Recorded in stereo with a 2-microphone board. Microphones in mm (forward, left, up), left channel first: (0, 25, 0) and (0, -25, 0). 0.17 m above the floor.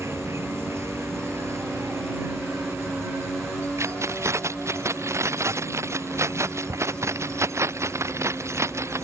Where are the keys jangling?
65° right (ahead or behind).